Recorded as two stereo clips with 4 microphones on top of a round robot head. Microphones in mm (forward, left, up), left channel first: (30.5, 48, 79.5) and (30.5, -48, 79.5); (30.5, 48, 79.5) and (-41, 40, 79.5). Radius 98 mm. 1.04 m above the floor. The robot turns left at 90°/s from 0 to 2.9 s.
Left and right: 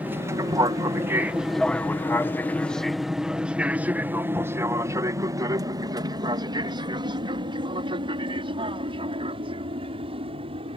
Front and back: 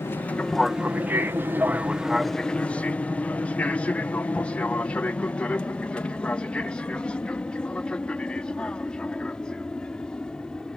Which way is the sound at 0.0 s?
20° right.